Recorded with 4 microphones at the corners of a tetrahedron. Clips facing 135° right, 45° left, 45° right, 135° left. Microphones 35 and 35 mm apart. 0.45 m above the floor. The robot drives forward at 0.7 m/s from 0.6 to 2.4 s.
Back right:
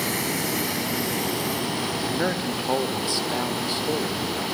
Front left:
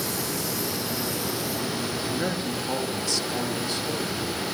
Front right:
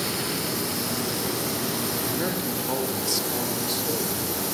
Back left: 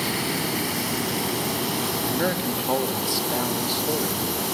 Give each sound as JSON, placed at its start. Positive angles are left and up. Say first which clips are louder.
{"t": 0.0, "sound": "running water", "louder": "back right 4 dB, back left 3 dB", "azimuth_deg": -165, "distance_m": 2.5}
{"t": 2.0, "sound": "a man speaking", "louder": "back right 4 dB, back left 3 dB", "azimuth_deg": -175, "distance_m": 1.0}